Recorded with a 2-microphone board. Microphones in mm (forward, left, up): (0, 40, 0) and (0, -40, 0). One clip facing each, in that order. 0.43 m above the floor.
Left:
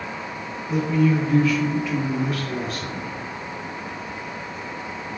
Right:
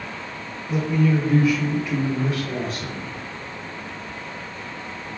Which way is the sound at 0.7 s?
Centre (ahead or behind).